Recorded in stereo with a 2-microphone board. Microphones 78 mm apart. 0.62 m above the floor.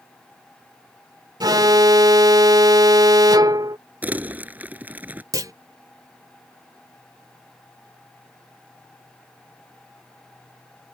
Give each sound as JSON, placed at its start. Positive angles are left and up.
{"t": 1.4, "sound": "an alarm", "side_deg": -60}
{"t": 4.0, "sound": "crumpling", "side_deg": -20}
{"t": 5.3, "sound": "a clunk", "side_deg": -50}